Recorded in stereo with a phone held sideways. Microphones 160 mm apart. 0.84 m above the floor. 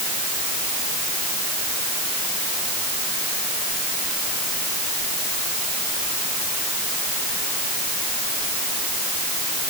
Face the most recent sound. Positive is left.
No sound to turn to.